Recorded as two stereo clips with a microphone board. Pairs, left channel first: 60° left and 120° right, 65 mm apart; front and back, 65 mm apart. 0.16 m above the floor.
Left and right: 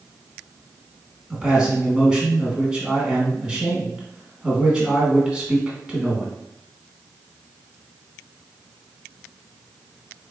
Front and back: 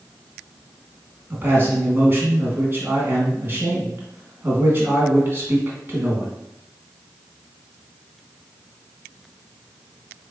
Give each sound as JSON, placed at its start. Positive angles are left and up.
{"t": 1.3, "sound": "a man speaking", "azimuth_deg": 180, "distance_m": 1.2}